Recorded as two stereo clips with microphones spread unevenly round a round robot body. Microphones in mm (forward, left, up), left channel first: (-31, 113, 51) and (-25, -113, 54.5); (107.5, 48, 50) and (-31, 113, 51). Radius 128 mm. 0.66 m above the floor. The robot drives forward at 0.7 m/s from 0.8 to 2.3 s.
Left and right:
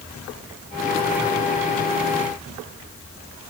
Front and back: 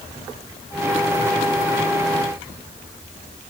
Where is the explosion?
I don't hear an explosion.